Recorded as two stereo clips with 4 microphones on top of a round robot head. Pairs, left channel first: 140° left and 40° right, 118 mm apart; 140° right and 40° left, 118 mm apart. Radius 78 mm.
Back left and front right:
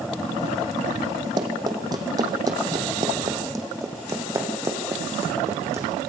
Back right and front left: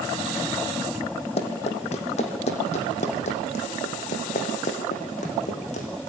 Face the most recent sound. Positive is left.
turn(degrees=-110)